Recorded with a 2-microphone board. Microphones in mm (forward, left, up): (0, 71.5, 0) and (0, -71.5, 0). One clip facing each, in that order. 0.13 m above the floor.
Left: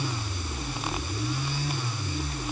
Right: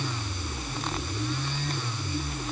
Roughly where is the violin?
No violin in this recording.